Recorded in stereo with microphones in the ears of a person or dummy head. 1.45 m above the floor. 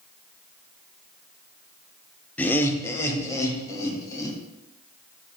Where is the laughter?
10° left (ahead or behind), 0.7 m; by 4.4 s 20° left (ahead or behind), 2.5 m.